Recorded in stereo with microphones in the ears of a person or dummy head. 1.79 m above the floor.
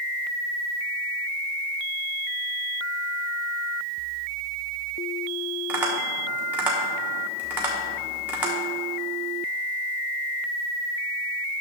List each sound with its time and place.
5.7 s tapping: 10° right (ahead or behind), 1.1 m